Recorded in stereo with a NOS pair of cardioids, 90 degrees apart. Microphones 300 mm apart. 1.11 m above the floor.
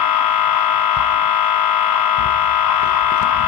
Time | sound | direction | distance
0.0 | a machine running | 65° left | 1.0 m